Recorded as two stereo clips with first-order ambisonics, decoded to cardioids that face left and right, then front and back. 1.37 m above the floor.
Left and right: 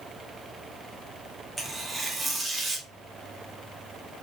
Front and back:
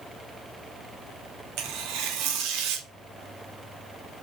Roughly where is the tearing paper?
Behind.